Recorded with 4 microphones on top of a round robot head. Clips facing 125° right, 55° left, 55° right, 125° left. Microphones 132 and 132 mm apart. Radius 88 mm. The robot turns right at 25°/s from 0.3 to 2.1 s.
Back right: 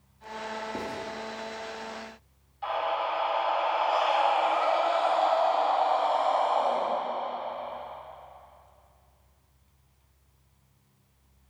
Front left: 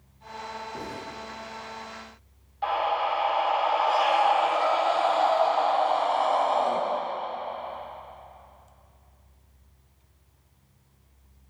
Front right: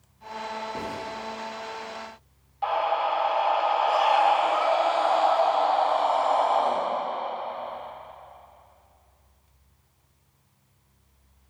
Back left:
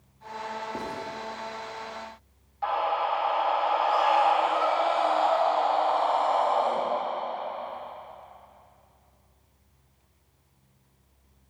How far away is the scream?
About 3 m.